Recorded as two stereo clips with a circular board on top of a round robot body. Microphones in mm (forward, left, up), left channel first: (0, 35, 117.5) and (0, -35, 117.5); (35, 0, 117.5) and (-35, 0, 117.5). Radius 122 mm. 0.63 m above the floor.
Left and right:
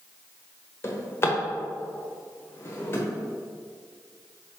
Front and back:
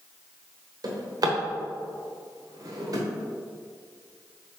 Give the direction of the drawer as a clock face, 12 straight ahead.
7 o'clock.